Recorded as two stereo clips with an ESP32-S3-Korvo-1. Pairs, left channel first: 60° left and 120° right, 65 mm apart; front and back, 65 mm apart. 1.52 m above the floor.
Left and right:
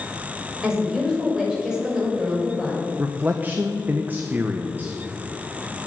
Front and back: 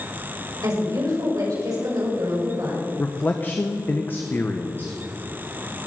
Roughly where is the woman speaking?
Behind.